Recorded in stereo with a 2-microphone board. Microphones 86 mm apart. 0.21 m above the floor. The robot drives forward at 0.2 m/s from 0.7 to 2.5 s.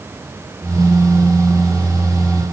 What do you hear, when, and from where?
Only background noise.